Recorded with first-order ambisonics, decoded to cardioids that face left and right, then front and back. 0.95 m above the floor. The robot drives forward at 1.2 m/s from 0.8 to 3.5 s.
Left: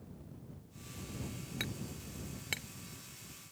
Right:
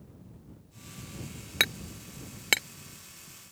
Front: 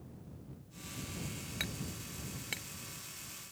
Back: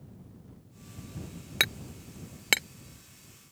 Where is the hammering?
135° right; by 2.7 s 140° right.